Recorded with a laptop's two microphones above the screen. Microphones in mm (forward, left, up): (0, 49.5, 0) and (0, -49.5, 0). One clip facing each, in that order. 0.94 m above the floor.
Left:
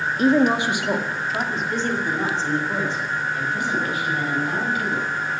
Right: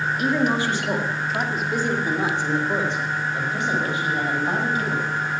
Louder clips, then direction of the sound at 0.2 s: Left 5 dB; 35° left (ahead or behind).